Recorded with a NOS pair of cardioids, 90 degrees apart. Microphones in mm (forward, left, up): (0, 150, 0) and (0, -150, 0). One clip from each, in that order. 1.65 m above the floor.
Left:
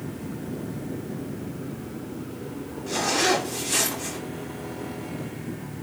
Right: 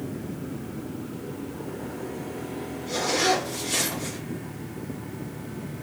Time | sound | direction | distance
2.9 | a zipper | 35° left | 2.5 m